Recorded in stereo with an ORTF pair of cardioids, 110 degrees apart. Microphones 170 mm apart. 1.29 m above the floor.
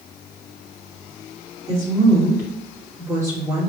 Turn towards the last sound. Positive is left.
turn(degrees=-20)